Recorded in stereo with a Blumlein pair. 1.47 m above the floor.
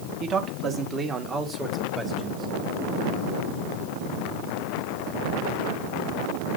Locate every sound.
0.2 s a man speaking: 25° right, 1.6 m; by 2.5 s 15° right, 3 m